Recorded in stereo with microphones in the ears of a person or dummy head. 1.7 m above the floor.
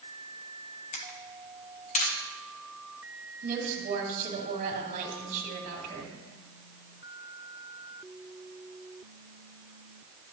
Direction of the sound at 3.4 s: 40° right (ahead or behind).